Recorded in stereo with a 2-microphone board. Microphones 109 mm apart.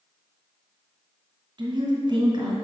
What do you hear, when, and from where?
1.6 s a woman speaking: 45° right (ahead or behind), 2.5 m